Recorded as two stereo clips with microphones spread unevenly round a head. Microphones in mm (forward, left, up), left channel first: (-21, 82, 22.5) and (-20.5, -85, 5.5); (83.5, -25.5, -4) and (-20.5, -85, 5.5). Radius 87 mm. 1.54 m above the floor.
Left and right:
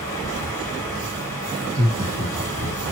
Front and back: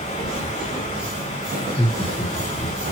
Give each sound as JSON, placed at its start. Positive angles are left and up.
{"t": 0.0, "sound": "running water", "azimuth_deg": 25, "distance_m": 3.0}
{"t": 1.6, "sound": "laughter", "azimuth_deg": -35, "distance_m": 1.2}